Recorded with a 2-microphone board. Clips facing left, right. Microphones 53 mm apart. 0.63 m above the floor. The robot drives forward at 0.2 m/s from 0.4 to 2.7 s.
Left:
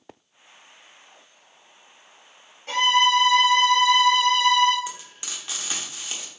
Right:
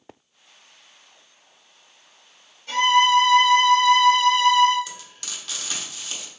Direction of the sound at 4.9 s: 25° left (ahead or behind).